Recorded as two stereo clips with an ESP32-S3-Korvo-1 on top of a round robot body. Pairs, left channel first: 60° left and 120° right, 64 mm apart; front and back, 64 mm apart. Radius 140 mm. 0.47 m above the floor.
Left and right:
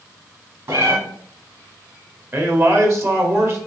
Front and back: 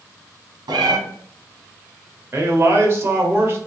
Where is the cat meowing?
160° right, 1.3 m.